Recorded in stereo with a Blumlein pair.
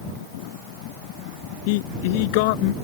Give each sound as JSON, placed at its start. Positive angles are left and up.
{"t": 1.7, "sound": "a man speaking", "azimuth_deg": 50}